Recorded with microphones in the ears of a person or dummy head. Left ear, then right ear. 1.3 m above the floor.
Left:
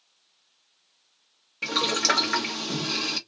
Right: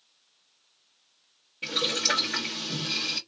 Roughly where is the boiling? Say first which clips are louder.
Left 3 dB; left.